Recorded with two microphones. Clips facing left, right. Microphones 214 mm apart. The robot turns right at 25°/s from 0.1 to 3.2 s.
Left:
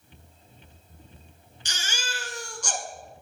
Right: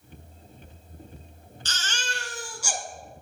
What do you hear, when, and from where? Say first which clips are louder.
1.6 s a baby crying: right 1 dB; 15° left (ahead or behind), 0.8 m; by 2.8 s 15° right (ahead or behind), 0.8 m